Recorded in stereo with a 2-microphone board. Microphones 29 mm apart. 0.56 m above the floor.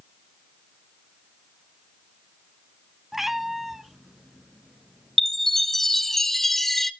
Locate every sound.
3.1 s a cat meowing: 10° right (ahead or behind), 0.7 m; by 6.2 s centre (ahead or behind), 2.5 m
5.2 s a chime: 10° left (ahead or behind), 0.8 m